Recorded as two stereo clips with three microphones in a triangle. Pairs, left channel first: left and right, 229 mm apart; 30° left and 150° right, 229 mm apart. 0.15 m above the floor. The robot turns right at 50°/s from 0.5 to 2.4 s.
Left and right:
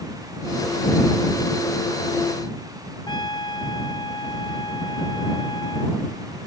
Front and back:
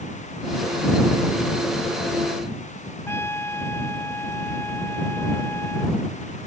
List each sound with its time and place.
3.1 s a trumpet: 85° left